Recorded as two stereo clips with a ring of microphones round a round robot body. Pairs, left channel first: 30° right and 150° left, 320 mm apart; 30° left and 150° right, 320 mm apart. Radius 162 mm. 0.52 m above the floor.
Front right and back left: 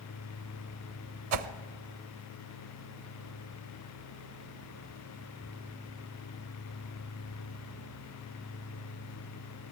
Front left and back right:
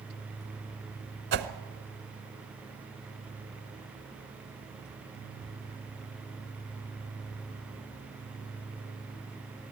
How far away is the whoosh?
About 0.9 m.